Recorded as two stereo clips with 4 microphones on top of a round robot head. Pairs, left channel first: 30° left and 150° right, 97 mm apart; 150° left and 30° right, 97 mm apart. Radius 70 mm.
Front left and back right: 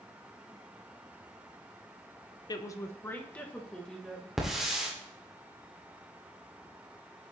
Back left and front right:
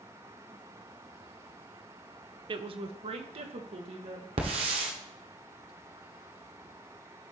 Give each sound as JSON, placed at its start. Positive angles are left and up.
{"t": 2.5, "sound": "a woman speaking", "azimuth_deg": -10, "distance_m": 0.8}
{"t": 4.4, "sound": "a hiss", "azimuth_deg": -60, "distance_m": 1.7}